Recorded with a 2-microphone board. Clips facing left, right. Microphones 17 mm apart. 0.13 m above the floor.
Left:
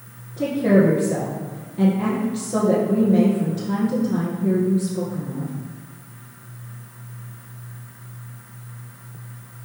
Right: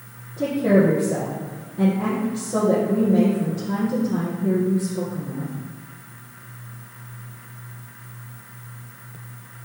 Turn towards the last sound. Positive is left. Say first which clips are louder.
# left 1 dB
turn(degrees=30)  # may be behind; listen again after turning